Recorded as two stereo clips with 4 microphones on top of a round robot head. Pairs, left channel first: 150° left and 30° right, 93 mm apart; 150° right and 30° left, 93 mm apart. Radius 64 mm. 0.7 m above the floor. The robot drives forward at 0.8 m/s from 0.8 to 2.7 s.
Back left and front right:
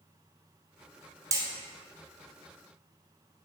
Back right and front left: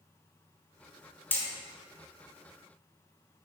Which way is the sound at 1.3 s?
80° right.